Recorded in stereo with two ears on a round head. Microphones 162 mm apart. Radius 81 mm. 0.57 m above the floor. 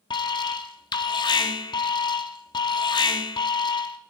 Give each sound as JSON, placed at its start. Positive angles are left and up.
{"t": 0.1, "sound": "an alarm", "side_deg": 25, "distance_m": 1.1}